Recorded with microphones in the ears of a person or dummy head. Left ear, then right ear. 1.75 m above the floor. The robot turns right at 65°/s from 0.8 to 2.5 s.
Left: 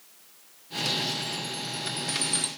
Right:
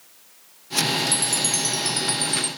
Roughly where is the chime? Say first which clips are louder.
Right 8 dB; right.